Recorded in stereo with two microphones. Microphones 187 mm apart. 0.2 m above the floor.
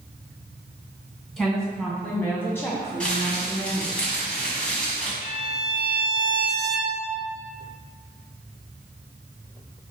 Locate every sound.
1.4 s a woman speaking: 5° left (ahead or behind), 1.4 m; by 4.0 s 25° left (ahead or behind), 1.1 m
3.0 s crumpling: 5° left (ahead or behind), 1.2 m
5.2 s a violin: 45° left (ahead or behind), 0.6 m